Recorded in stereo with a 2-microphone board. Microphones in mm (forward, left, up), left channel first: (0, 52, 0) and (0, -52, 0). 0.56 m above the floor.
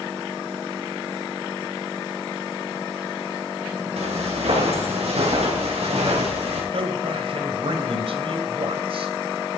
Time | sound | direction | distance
4.0 | footsteps | 85° right | 6.5 m
6.7 | a man speaking | 60° right (ahead or behind) | 2.5 m